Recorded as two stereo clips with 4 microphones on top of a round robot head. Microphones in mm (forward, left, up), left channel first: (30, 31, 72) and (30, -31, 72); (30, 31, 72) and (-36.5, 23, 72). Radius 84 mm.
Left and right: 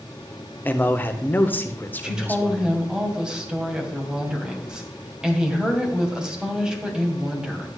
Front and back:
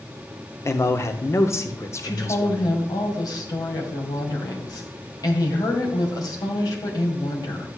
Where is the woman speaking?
10° right, 2.5 m.